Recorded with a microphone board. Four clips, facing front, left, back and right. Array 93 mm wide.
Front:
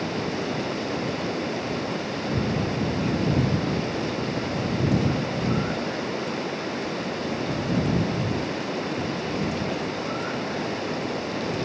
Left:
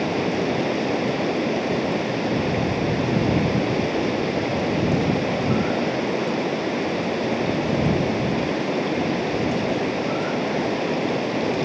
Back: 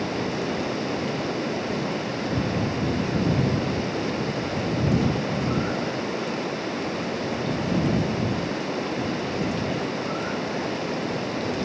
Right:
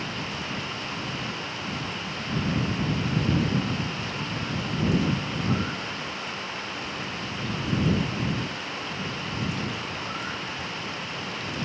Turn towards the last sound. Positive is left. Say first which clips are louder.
# left 11 dB, back 1 dB
turn(degrees=95)